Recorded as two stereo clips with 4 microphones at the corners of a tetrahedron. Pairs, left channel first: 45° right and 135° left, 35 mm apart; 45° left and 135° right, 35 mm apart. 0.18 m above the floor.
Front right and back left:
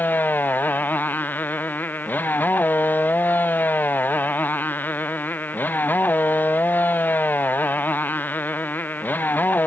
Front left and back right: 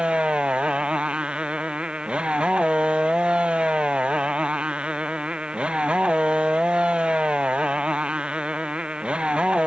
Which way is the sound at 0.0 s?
75° right.